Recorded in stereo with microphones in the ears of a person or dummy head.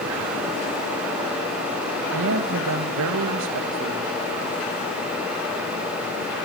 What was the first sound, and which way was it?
A man speaking, 75° right (ahead or behind).